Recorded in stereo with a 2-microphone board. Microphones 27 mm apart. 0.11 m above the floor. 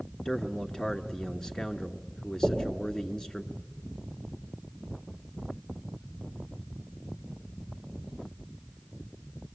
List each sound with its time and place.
0.2 s a man speaking: 20° left (ahead or behind), 1.2 m
2.4 s knocking: 40° left (ahead or behind), 6 m